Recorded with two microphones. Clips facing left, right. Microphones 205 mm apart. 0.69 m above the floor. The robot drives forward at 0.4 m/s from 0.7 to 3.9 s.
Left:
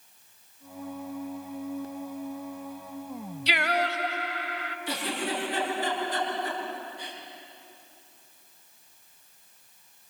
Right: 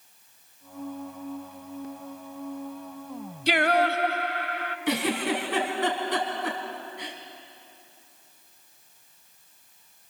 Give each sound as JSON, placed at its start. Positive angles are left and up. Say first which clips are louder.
{"t": 3.5, "sound": "singing", "louder": "right 6 dB", "side_deg": -50, "distance_m": 0.8}
{"t": 4.9, "sound": "a giggle", "louder": "right 6 dB", "side_deg": -85, "distance_m": 4.0}